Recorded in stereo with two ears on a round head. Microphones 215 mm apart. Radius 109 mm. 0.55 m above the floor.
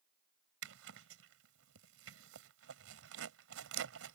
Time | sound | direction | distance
0.6 | a zipper | 65° right (ahead or behind) | ?